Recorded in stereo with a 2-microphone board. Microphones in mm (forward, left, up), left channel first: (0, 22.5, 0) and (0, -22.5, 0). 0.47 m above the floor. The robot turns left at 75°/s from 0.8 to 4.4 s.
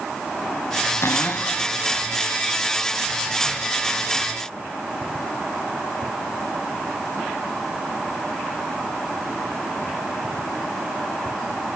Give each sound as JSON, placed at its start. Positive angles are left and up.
{"t": 1.0, "sound": "a cupboard door", "azimuth_deg": 80, "distance_m": 1.3}